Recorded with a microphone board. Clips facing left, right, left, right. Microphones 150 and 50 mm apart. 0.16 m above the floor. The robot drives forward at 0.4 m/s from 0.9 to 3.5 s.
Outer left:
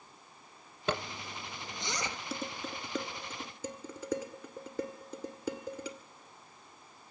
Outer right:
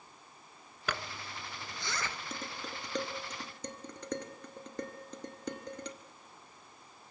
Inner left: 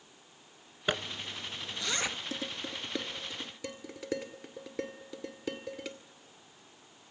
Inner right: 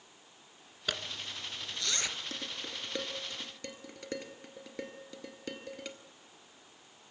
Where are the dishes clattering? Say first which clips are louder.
Outer left 3 dB, inner left 3 dB; 5° left (ahead or behind), 1.6 m.